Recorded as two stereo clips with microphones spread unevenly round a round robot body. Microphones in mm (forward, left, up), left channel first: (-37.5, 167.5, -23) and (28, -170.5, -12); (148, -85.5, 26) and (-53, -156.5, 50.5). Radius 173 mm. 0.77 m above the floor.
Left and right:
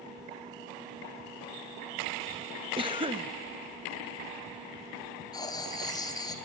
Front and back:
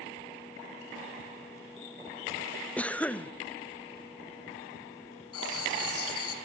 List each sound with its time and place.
2.8 s a cough: 30° right, 0.8 m
5.3 s writing: 20° left, 3 m